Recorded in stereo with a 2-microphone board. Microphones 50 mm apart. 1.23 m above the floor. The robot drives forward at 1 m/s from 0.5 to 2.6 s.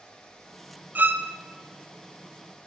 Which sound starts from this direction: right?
A violin, at 0.9 s.